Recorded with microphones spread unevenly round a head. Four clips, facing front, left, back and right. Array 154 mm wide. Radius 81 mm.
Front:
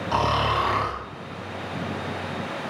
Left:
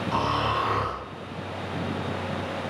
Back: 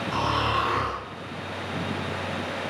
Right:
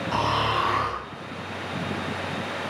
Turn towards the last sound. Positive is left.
turn(degrees=-10)